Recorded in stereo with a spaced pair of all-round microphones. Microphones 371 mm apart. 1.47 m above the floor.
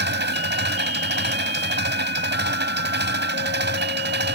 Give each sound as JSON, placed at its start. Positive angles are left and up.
{"t": 0.0, "sound": "an engine running", "side_deg": -30}